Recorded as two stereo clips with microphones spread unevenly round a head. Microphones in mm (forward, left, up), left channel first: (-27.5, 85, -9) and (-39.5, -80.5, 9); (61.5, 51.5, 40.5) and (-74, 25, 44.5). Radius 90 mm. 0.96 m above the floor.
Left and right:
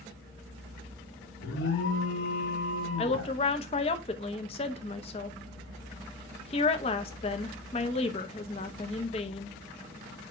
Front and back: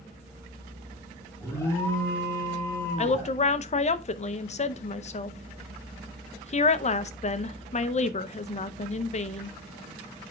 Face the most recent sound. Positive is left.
turn(degrees=35)